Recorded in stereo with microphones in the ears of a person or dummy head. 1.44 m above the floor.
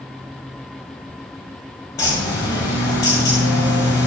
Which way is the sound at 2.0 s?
20° left (ahead or behind).